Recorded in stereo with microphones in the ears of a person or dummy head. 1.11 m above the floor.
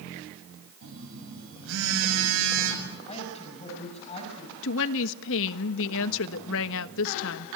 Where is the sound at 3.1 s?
35° left (ahead or behind), 6.5 m.